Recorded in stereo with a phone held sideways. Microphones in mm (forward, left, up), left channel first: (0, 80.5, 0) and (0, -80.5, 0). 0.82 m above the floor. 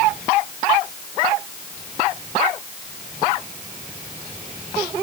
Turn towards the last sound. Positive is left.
No sound to turn to.